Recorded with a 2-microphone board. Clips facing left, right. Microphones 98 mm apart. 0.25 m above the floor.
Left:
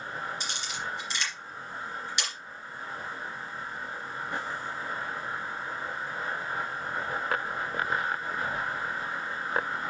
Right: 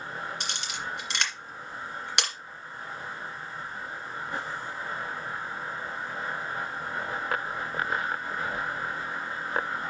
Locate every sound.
0.4 s a camera shutter: 65° right (ahead or behind), 2.5 m